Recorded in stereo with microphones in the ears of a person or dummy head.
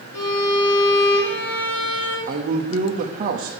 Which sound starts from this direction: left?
A violin, at 0.1 s.